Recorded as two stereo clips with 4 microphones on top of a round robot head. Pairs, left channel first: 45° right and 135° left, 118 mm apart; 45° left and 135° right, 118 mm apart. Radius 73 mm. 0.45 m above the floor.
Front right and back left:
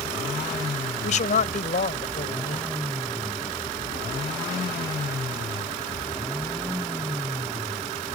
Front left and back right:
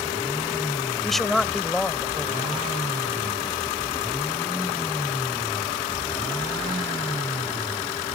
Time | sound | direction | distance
1.0 | a man speaking | 40° right | ?